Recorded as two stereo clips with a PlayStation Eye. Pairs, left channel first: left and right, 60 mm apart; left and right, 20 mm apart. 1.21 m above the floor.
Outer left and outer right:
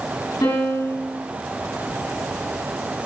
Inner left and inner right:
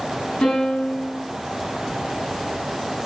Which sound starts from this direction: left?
A piano, at 0.4 s.